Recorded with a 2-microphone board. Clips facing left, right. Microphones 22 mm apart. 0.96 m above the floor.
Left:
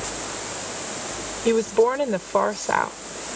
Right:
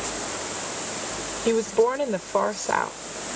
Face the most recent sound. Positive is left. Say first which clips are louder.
# left 2 dB
turn(degrees=15)  # may be behind; listen again after turning